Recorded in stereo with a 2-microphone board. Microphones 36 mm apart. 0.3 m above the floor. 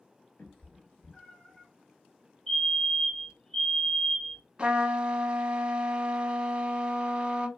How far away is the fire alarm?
About 1.9 m.